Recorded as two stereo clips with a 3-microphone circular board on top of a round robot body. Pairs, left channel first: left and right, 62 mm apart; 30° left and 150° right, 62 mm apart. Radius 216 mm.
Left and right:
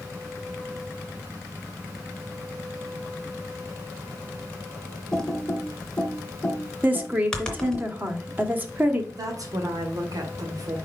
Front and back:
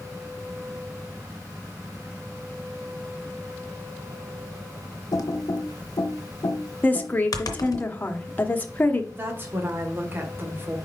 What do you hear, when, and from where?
5.1 s typing on a keyboard: 10° left, 1.1 m
6.8 s a woman speaking: 30° right, 1.5 m
9.1 s a woman speaking: 95° right, 2 m